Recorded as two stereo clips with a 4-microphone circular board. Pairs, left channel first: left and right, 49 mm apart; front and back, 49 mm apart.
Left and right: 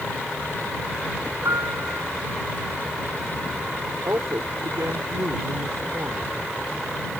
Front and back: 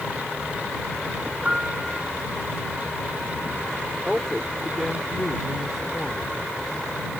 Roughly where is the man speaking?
Right.